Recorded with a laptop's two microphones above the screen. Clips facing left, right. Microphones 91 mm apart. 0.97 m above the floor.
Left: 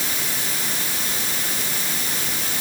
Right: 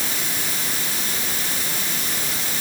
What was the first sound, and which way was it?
Only background noise.